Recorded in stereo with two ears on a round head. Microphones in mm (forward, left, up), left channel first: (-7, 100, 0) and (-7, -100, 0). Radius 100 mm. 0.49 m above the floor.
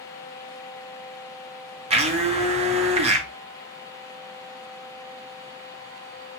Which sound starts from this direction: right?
A blender, at 1.9 s.